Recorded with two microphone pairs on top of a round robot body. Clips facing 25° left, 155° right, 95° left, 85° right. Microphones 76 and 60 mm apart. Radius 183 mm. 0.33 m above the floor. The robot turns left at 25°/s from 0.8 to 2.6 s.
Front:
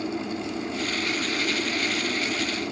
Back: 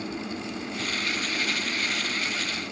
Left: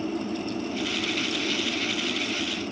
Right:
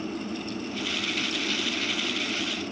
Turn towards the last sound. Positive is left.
turn(degrees=15)